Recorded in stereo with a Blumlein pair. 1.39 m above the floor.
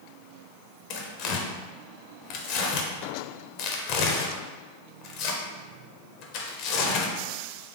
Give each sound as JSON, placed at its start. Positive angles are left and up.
{"t": 0.9, "sound": "tearing paper", "azimuth_deg": 40, "distance_m": 0.6}